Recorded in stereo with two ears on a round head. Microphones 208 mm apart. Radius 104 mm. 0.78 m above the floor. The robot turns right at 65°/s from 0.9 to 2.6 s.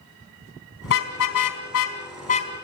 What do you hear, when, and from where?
0.8 s a car horn: 55° left (ahead or behind), 3.5 m; by 2.5 s 20° left (ahead or behind), 3.5 m